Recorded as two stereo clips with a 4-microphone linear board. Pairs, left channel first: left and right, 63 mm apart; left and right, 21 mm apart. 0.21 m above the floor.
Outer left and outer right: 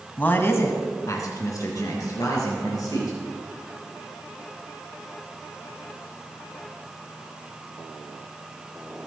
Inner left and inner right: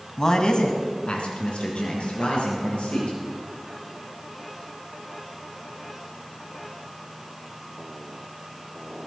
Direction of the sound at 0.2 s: 25° left (ahead or behind).